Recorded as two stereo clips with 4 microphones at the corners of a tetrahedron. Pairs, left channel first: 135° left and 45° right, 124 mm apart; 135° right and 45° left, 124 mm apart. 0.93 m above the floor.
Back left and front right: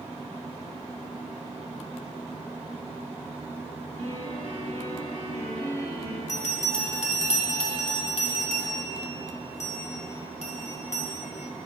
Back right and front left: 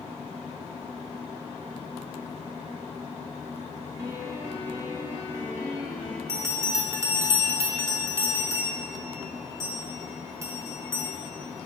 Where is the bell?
115° left, 1.1 m.